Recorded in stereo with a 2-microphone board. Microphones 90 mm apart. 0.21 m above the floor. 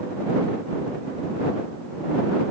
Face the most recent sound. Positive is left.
No sound to turn to.